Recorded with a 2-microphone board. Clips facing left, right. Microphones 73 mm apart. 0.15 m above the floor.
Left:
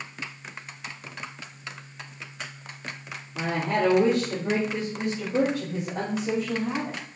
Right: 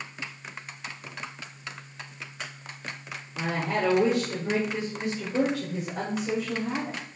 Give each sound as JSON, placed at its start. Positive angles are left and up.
{"t": 3.4, "sound": "a woman speaking", "side_deg": 45, "distance_m": 5.5}